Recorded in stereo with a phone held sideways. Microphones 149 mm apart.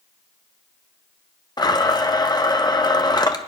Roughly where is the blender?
Left.